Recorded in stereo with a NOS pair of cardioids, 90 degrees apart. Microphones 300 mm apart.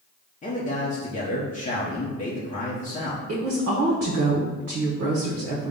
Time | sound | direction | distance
0.4 | a man speaking | 25° left | 0.7 m
3.3 | a woman speaking | 50° right | 0.8 m